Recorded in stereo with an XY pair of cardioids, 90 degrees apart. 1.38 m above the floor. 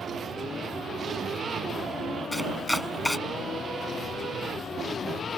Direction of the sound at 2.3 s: 10° left.